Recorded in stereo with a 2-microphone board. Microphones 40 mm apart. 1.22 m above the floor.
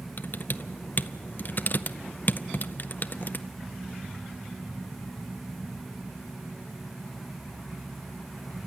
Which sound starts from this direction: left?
Typing on a keyboard, at 0.2 s.